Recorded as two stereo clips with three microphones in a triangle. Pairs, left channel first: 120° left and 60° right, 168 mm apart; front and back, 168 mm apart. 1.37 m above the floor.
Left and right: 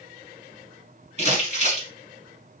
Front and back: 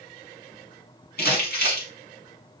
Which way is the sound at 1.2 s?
10° right.